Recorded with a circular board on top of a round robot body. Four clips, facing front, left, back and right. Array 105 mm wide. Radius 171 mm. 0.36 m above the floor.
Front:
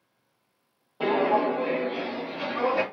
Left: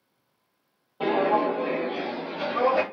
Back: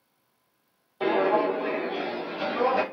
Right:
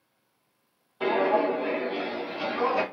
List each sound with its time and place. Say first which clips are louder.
1.0 s footsteps: left 1 dB, even; 40° left, 1.0 m; by 2.8 s 95° left, 1.2 m